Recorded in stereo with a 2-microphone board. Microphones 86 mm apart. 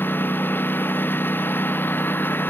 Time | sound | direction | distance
0.0 | a lawn mower | 25° left (ahead or behind) | ?